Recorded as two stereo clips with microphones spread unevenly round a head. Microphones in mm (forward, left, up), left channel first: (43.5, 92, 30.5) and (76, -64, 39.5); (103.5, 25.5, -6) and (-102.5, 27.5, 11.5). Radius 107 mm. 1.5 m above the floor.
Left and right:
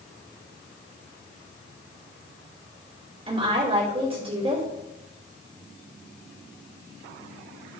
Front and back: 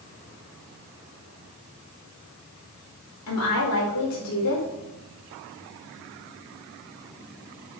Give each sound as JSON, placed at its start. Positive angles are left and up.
{"t": 3.3, "sound": "a woman speaking", "azimuth_deg": -20, "distance_m": 5.0}